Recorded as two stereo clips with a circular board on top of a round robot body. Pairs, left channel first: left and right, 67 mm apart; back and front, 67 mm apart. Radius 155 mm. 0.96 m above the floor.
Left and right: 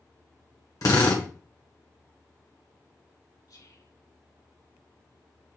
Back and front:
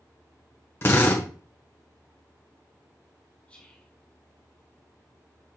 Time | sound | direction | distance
0.8 | a drill | 125° left | 1.5 m
3.5 | whispering | 110° left | 4 m